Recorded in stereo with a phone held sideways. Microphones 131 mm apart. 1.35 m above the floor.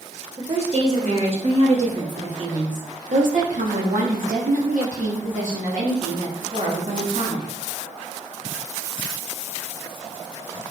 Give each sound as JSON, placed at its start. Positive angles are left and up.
{"t": 0.4, "sound": "a woman speaking", "side_deg": -45, "distance_m": 3.0}